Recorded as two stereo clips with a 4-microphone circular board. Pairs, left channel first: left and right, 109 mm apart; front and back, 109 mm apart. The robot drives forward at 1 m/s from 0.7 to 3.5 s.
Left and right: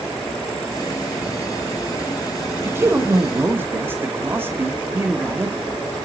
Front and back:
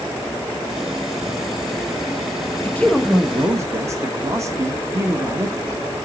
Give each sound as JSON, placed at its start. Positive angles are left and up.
{"t": 2.6, "sound": "a man speaking", "azimuth_deg": -45, "distance_m": 1.0}